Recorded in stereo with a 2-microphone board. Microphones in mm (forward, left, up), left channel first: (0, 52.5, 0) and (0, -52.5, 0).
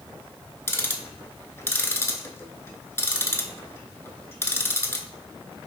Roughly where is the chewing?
I don't hear chewing.